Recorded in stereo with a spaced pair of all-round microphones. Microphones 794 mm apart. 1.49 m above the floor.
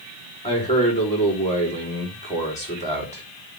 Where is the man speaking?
10° left (ahead or behind), 3.5 m.